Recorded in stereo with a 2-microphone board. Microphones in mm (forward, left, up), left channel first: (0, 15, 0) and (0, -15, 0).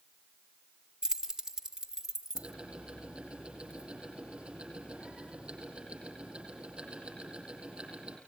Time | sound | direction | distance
1.0 | keys jangling | 25° right (ahead or behind) | 0.8 m
2.4 | ticking | 40° right (ahead or behind) | 6 m